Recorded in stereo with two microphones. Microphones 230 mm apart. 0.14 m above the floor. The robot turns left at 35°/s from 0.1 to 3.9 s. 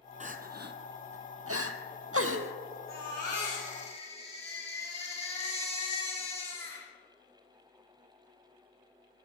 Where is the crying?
30° right (ahead or behind), 0.9 m; by 2.5 s 65° right (ahead or behind), 0.9 m.